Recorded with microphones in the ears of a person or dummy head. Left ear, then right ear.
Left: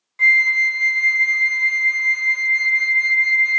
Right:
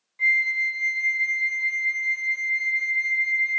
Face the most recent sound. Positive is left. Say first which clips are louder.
# left 7 dB
turn(degrees=50)  # may be behind; listen again after turning